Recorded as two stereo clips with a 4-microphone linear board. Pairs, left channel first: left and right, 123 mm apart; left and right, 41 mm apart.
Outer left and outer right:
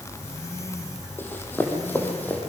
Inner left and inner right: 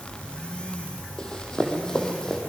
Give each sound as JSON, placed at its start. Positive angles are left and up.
{"t": 1.2, "sound": "running footsteps", "side_deg": 15, "distance_m": 3.0}